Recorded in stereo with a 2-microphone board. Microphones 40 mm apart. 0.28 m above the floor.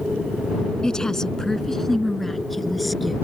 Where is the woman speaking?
20° left (ahead or behind); by 3.2 s centre (ahead or behind).